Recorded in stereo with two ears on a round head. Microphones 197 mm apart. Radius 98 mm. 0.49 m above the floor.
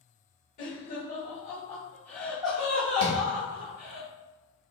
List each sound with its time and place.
0.6 s laughter: 40° left (ahead or behind), 1.5 m; by 4.0 s 45° right (ahead or behind), 1.2 m
3.0 s tapping: 75° right (ahead or behind), 1.1 m